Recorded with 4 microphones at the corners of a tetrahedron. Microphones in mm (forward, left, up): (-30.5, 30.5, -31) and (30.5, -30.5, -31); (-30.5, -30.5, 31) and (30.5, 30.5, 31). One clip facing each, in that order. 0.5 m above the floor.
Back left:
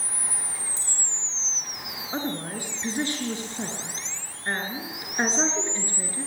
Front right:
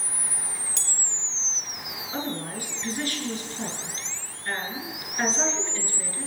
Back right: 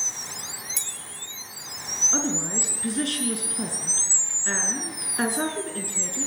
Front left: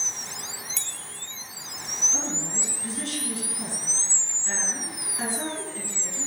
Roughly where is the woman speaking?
Behind.